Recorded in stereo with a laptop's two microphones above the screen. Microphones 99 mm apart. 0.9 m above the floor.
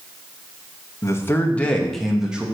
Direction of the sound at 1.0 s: 30° left (ahead or behind).